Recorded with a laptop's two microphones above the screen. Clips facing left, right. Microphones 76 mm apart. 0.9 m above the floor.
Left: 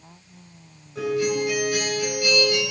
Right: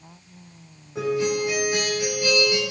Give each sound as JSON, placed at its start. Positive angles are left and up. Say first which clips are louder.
{"t": 0.9, "sound": "a guitar", "louder": "even", "side_deg": -25, "distance_m": 5.0}